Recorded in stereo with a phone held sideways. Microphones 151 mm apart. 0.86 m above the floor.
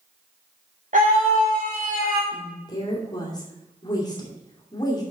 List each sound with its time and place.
0.9 s a scream: 60° right (ahead or behind), 1.8 m
2.3 s a woman speaking: 25° left (ahead or behind), 2.5 m